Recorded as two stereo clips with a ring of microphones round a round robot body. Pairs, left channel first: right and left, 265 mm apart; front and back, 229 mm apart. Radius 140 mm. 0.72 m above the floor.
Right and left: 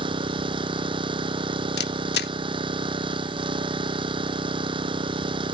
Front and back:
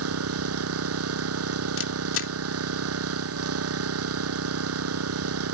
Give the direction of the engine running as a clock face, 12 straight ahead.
7 o'clock.